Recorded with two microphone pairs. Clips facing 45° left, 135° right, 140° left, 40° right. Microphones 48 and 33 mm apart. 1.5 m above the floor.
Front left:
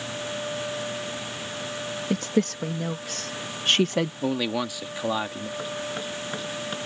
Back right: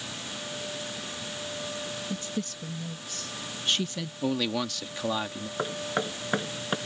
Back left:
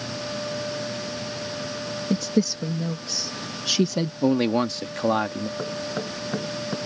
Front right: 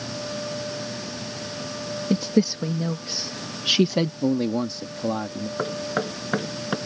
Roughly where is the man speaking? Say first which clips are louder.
Front left 2 dB, back left 7 dB; behind left.